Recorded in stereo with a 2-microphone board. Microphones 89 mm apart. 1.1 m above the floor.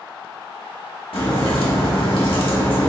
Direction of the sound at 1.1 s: 80° left.